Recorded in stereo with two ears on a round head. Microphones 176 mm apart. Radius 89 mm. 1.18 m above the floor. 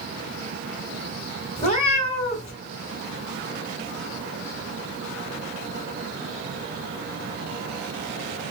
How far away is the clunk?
I don't hear a clunk.